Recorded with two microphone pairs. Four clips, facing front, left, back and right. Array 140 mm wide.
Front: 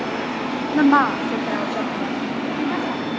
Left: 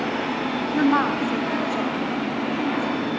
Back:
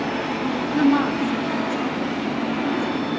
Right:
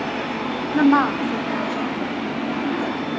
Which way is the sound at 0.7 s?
40° right.